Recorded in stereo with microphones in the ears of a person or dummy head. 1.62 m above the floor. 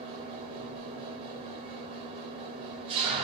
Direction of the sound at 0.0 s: 30° right (ahead or behind).